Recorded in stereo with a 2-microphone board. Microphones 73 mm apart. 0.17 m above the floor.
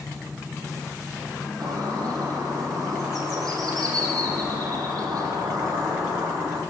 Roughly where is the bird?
Right.